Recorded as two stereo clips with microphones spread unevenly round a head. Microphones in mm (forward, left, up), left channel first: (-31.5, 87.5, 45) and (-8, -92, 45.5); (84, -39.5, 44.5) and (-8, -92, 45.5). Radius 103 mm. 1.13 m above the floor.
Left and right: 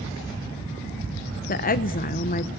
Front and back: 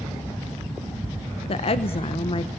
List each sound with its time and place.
1.5 s a woman speaking: 60° left, 0.8 m